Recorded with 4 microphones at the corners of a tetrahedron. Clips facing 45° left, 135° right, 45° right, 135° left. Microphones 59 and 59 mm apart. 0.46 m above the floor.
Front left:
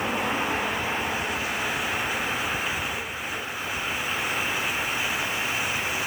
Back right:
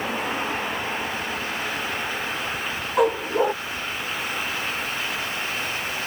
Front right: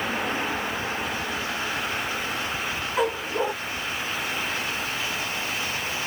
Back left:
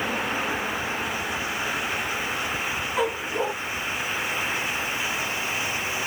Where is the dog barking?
130° right.